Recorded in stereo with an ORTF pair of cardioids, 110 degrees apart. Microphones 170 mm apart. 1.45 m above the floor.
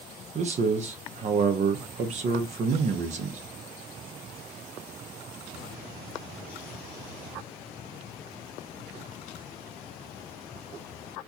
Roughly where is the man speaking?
Ahead right.